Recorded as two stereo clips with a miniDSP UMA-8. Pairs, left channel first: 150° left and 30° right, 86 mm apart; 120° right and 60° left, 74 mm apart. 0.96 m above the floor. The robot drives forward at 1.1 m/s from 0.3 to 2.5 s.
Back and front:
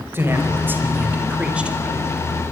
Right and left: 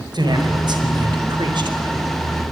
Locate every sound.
0.1 s a man speaking: 35° left, 5 m; by 2.1 s 55° left, 3.5 m